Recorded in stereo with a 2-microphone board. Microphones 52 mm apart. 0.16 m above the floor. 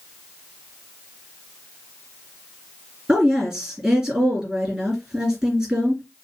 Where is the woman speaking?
20° right (ahead or behind), 2.5 m.